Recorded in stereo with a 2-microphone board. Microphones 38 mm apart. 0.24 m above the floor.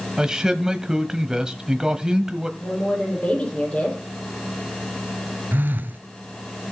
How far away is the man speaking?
About 1.0 m.